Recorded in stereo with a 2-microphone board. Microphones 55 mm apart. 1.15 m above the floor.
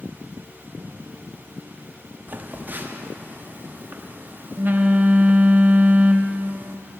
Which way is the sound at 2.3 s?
35° right (ahead or behind).